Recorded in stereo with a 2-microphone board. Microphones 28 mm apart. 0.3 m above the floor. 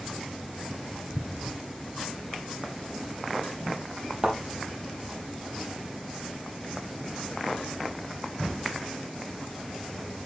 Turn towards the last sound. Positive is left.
turn(degrees=-20)  # may be behind; listen again after turning